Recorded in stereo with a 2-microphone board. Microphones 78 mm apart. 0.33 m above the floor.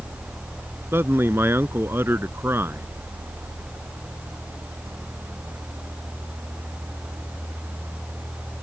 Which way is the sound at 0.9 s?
30° right (ahead or behind).